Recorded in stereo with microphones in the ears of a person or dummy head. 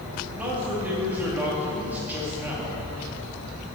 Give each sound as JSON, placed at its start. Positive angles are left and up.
{"t": 0.4, "sound": "a man speaking", "side_deg": -5, "distance_m": 2.5}